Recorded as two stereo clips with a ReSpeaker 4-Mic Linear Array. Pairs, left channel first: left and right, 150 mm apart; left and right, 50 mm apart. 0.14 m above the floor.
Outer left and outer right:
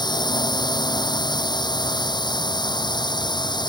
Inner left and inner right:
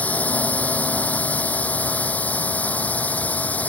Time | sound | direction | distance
0.0 | a drone | 30° left (ahead or behind) | ?